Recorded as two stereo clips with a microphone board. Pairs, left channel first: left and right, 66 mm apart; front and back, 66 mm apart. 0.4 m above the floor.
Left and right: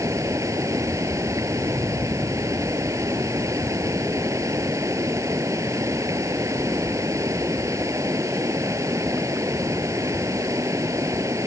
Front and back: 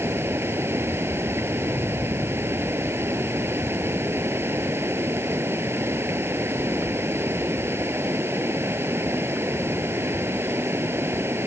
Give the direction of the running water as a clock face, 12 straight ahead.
4 o'clock.